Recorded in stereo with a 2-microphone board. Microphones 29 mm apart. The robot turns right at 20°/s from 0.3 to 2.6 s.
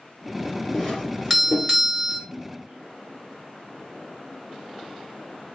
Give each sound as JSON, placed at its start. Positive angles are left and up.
{"t": 0.7, "sound": "a doorbell", "side_deg": 10, "distance_m": 2.5}
{"t": 2.3, "sound": "a splash", "side_deg": -45, "distance_m": 2.5}